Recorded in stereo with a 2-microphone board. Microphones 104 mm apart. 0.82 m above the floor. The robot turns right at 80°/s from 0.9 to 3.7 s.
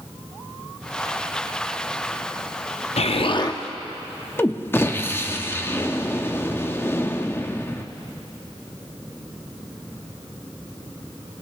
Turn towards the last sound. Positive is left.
turn(degrees=160)